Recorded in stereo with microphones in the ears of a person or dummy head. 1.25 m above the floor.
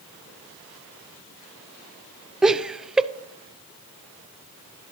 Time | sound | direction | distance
2.4 | laughter | 5° right (ahead or behind) | 0.6 m